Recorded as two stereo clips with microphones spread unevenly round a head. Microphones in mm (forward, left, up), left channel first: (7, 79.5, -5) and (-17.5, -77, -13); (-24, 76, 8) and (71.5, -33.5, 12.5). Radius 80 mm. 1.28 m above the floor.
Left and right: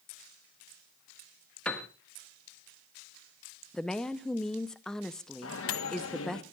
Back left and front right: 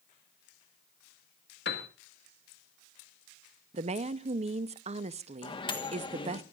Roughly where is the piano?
Behind.